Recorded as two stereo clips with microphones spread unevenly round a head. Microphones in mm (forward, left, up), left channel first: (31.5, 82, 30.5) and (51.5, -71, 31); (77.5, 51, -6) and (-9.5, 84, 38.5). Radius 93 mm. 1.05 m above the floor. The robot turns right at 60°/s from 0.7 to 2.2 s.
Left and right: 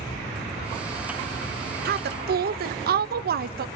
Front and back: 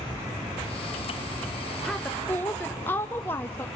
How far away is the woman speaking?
About 1.1 m.